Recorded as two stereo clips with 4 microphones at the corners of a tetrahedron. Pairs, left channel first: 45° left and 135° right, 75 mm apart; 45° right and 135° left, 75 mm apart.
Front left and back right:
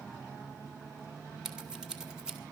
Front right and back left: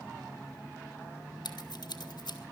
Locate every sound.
1.4 s scissors: 55° right, 2 m